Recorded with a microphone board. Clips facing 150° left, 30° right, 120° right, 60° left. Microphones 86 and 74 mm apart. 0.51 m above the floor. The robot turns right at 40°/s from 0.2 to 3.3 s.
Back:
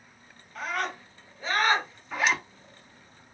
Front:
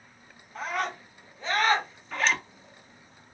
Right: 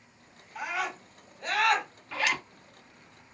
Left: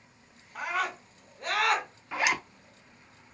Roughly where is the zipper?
Left.